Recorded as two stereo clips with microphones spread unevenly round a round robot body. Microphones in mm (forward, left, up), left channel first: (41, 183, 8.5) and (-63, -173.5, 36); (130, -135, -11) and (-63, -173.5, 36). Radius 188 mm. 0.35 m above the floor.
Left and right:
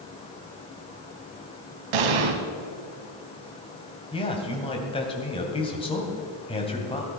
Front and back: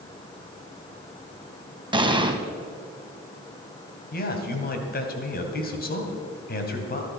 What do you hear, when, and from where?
1.9 s an explosion: 100° right, 1.7 m
4.1 s a man speaking: straight ahead, 2.5 m